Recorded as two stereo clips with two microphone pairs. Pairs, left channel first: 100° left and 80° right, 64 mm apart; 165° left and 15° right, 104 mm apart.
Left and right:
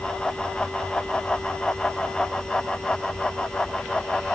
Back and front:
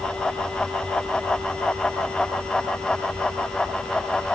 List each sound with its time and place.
Only background noise.